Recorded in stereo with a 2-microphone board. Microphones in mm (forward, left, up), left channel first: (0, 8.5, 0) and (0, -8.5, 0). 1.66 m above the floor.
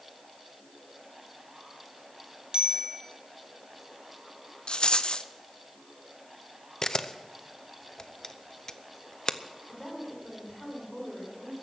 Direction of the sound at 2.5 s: 55° right (ahead or behind).